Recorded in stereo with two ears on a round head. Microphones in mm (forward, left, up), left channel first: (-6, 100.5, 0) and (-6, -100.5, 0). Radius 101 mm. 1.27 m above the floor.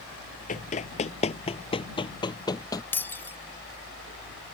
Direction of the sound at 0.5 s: 35° left (ahead or behind).